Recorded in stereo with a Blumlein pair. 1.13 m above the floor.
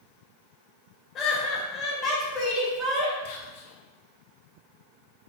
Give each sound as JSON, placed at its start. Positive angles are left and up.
{"t": 1.1, "sound": "laughter", "azimuth_deg": 30, "distance_m": 1.3}
{"t": 3.2, "sound": "whispering", "azimuth_deg": 50, "distance_m": 0.8}